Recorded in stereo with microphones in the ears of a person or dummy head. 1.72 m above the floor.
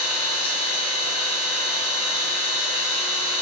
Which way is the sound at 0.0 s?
25° left (ahead or behind).